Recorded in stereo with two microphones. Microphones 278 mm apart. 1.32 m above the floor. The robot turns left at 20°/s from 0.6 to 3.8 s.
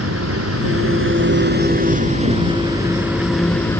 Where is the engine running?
125° right; by 3.8 s 170° left.